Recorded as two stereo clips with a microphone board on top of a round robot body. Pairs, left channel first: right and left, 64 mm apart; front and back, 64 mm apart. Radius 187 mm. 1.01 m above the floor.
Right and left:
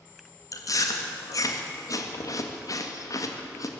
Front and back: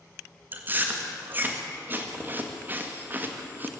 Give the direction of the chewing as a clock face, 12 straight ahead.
4 o'clock.